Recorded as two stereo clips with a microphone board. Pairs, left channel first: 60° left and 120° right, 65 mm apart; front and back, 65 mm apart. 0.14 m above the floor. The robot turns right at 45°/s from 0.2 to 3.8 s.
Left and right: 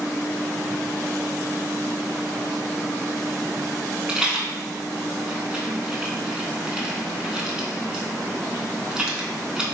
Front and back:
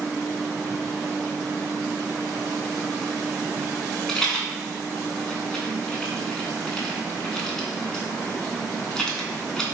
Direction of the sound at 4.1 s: 65° right.